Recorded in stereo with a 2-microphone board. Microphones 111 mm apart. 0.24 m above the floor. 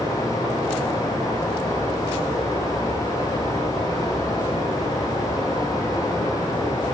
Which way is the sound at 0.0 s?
30° left (ahead or behind).